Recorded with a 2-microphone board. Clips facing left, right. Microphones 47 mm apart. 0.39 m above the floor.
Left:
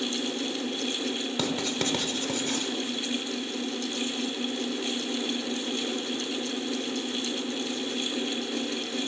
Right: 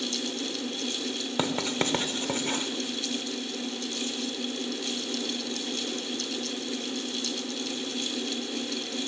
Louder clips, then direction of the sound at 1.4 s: Right 3 dB; 30° right (ahead or behind).